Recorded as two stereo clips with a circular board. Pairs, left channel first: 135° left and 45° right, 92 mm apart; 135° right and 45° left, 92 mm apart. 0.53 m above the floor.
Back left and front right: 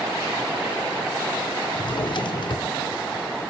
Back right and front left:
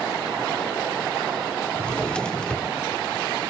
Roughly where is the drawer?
Behind left.